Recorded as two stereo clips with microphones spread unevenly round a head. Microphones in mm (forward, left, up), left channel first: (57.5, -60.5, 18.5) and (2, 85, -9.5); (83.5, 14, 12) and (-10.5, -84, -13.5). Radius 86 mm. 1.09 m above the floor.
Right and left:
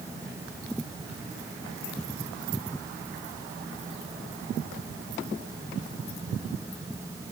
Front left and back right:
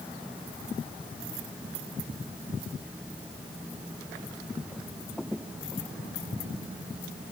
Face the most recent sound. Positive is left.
No sound to turn to.